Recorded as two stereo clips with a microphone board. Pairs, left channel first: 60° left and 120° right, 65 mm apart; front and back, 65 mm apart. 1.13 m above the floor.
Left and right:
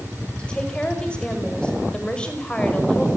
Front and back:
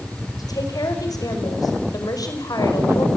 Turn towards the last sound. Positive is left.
turn(degrees=-15)